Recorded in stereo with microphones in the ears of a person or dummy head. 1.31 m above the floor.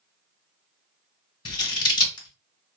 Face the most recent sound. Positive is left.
turn(degrees=20)  # may be behind; listen again after turning